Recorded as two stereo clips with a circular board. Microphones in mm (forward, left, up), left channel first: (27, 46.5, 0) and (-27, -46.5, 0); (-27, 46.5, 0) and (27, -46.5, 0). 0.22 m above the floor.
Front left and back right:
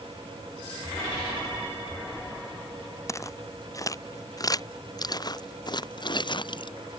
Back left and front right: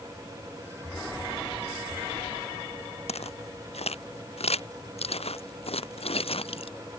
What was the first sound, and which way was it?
Footsteps, 120° left.